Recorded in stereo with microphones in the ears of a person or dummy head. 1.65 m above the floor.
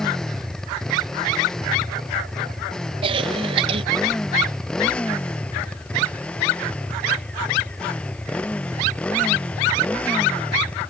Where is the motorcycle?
5° left (ahead or behind).